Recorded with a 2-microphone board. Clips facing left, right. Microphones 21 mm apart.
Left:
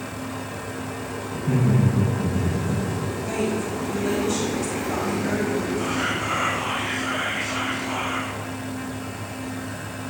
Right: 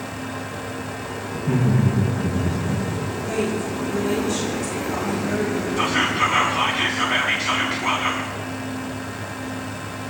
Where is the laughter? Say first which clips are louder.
Right 1 dB; 10° right (ahead or behind), 8 m; by 2.8 s 5° right (ahead or behind), 7 m.